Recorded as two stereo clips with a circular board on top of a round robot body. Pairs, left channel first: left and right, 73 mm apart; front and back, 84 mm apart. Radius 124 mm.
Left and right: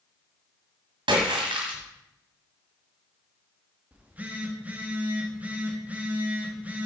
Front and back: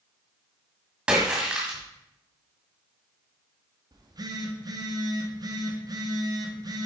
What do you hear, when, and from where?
1.1 s a splash: 100° right, 1.7 m
3.9 s a phone buzzing: 155° right, 1.7 m